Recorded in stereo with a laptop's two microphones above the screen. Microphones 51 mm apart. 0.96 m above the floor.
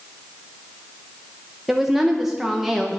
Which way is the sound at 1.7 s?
5° right (ahead or behind).